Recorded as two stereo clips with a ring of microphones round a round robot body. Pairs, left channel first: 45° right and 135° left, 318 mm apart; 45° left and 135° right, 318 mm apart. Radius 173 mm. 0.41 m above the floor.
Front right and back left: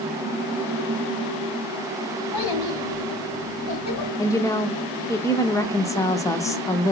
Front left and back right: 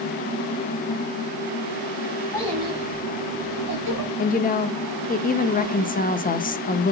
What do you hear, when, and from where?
2.3 s a child speaking: 35° right, 2.5 m; by 4.1 s 90° right, 3 m
4.2 s a woman speaking: 25° left, 0.8 m